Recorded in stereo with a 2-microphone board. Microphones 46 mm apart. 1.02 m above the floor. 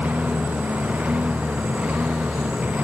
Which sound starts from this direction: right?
A lawn mower, at 0.0 s.